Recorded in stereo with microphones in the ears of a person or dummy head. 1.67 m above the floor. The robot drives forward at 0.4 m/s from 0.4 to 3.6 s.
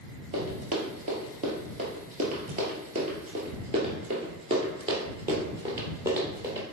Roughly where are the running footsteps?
Right.